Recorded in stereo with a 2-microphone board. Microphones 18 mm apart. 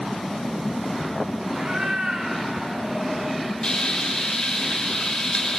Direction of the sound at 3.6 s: 40° left (ahead or behind).